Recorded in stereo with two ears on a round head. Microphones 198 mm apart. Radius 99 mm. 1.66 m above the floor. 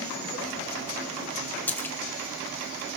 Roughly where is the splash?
Centre.